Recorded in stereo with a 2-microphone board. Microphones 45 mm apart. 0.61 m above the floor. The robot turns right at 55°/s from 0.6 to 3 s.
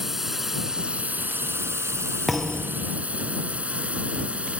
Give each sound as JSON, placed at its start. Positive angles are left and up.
{"t": 0.0, "sound": "a drone", "side_deg": -5}
{"t": 2.3, "sound": "a thud", "azimuth_deg": 0}